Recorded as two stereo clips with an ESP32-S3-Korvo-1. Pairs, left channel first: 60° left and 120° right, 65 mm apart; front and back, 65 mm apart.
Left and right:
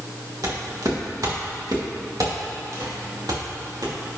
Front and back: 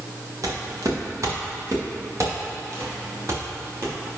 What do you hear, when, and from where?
0.4 s footsteps: 150° right, 3 m; by 4.0 s 135° right, 4.5 m